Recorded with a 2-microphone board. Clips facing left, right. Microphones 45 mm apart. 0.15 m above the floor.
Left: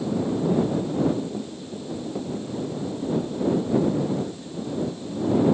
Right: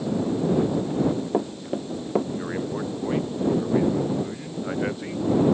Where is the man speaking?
80° right.